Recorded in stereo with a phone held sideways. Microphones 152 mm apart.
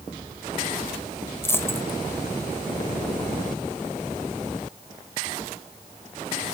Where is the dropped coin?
15° left (ahead or behind), 1.1 m.